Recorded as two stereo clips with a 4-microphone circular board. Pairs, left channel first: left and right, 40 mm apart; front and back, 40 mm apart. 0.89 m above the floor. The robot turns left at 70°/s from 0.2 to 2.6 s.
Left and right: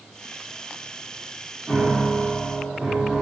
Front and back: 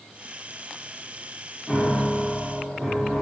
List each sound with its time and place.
1.7 s a piano: 105° right, 0.8 m; by 3.2 s 170° right, 0.8 m